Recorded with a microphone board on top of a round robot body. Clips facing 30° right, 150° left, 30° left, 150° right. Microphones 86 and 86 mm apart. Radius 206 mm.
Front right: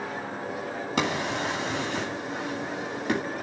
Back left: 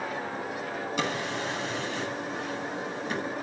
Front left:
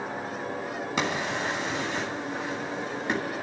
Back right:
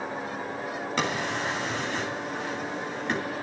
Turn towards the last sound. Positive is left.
turn(degrees=-50)